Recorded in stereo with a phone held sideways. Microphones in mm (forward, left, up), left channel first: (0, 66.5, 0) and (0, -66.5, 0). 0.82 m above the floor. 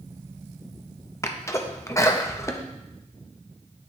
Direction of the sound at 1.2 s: 20° left (ahead or behind).